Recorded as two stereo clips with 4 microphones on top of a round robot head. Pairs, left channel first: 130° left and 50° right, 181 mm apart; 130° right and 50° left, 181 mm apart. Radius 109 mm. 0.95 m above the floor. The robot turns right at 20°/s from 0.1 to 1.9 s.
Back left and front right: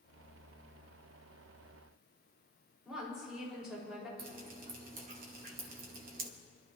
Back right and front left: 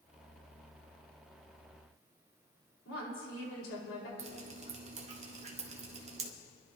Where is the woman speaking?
135° right, 5 m.